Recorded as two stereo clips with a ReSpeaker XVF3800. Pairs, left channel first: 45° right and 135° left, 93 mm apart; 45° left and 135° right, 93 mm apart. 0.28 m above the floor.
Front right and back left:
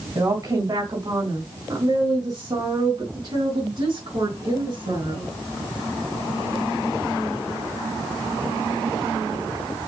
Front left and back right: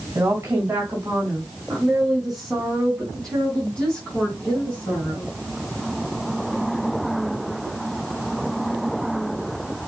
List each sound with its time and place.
0.1 s a woman speaking: 170° left, 2.5 m; by 5.3 s 115° left, 4 m